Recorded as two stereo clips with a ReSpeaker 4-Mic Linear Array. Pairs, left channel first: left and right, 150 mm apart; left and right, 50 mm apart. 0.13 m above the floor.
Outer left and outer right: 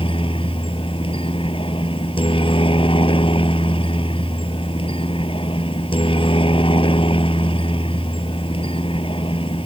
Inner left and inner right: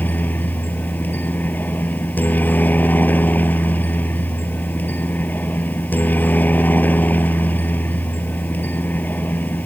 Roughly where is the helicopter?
Left.